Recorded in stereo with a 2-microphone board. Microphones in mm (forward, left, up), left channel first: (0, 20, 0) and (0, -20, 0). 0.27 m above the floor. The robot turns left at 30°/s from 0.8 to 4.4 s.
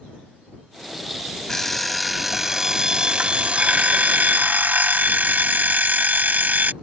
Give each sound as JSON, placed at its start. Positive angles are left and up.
{"t": 1.5, "sound": "an alarm clock", "azimuth_deg": 15}